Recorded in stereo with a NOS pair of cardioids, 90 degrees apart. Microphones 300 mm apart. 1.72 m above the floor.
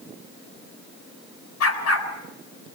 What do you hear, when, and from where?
1.6 s a dog barking: 60° left, 6.5 m